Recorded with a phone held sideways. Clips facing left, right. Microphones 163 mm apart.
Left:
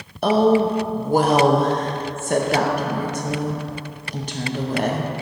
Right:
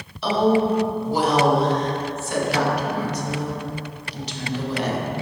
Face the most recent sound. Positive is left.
turn(degrees=50)  # may be behind; listen again after turning